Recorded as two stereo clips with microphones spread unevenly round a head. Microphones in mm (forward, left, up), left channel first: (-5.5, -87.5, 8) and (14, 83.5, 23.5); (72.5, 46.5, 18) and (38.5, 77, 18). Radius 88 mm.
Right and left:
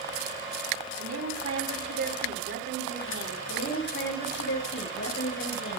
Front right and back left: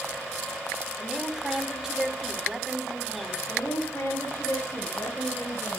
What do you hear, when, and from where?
1.0 s a woman speaking: 60° left, 5 m
3.5 s a woman speaking: 120° right, 6 m